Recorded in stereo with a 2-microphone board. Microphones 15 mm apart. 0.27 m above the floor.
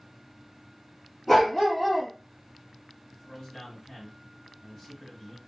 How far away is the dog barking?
About 1.5 m.